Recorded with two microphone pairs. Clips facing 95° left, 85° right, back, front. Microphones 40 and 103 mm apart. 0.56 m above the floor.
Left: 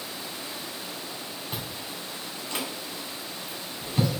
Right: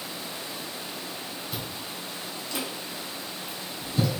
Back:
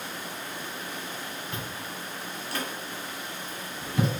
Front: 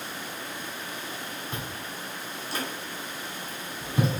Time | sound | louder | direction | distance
1.5 | chewing | even, even | 65° left | 1.9 m